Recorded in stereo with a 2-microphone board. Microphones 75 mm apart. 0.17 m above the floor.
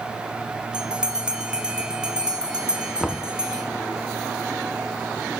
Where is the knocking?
Centre (ahead or behind), 1.1 m.